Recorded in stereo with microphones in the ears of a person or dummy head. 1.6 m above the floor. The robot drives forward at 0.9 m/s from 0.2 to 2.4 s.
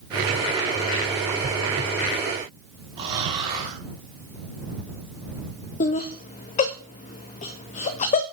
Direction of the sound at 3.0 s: 30° right (ahead or behind).